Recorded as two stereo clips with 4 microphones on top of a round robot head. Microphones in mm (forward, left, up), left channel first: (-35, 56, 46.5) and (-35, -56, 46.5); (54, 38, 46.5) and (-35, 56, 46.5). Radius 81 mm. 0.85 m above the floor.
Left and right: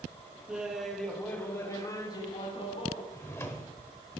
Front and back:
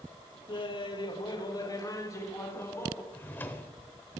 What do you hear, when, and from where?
0.5 s laughter: 10° right, 1.5 m; by 3.0 s 55° left, 2 m
3.1 s a drawer: 35° left, 0.6 m